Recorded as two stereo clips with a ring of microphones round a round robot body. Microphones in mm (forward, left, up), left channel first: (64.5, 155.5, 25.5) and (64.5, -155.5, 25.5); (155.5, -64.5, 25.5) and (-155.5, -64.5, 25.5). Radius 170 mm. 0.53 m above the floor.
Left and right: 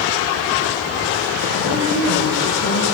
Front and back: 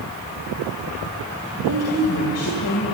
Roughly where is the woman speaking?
Ahead left.